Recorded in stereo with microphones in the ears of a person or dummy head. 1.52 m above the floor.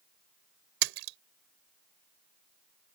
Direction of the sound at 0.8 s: 65° right (ahead or behind).